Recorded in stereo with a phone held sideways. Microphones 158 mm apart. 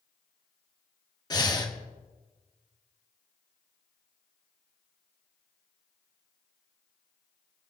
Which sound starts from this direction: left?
Breathing, at 1.3 s.